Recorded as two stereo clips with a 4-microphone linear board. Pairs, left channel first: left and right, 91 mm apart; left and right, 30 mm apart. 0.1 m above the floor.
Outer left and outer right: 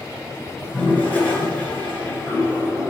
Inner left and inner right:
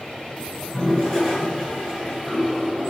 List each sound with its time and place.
0.6 s a toilet flushing: 20° left (ahead or behind), 1.5 m